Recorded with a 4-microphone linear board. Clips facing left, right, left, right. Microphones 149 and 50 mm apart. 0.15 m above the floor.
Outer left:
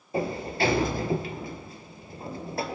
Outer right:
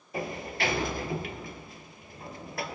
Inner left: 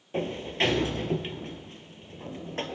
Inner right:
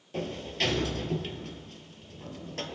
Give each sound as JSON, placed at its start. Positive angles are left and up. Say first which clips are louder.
{"t": 0.1, "sound": "a sliding door", "louder": "outer left 6 dB, inner left 4 dB", "side_deg": 30, "distance_m": 0.6}